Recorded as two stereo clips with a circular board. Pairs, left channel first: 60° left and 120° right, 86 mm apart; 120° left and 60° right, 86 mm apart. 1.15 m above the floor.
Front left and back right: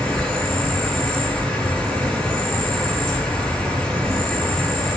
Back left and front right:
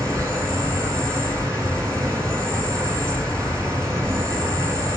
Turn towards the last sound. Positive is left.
turn(degrees=-25)